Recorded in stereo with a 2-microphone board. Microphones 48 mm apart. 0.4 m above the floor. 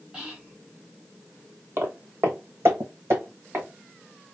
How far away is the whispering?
About 2.5 m.